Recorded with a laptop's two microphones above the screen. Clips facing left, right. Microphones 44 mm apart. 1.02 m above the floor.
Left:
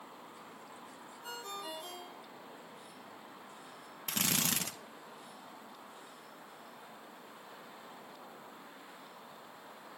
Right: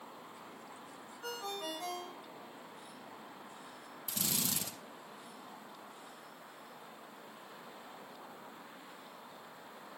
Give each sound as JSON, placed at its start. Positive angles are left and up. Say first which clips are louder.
{"t": 1.2, "sound": "a ringtone", "louder": "right 3 dB", "side_deg": -85, "distance_m": 4.5}
{"t": 4.1, "sound": "a drill", "louder": "left 5 dB", "side_deg": 60, "distance_m": 1.3}